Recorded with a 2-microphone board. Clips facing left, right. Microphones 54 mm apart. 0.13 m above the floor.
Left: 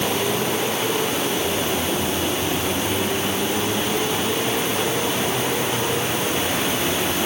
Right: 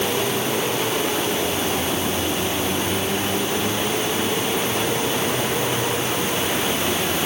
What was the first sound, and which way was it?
Only background noise.